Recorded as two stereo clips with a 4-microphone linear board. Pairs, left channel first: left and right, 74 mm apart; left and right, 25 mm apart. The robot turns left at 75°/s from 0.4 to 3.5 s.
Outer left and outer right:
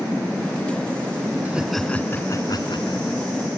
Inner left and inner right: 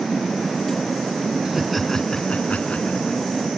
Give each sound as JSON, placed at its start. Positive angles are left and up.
{"t": 1.4, "sound": "laughter", "azimuth_deg": -160}